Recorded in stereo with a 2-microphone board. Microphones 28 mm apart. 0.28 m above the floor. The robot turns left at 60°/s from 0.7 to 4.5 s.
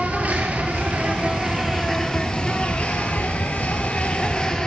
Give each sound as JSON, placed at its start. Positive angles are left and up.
{"t": 0.0, "sound": "an insect", "azimuth_deg": -110, "distance_m": 1.1}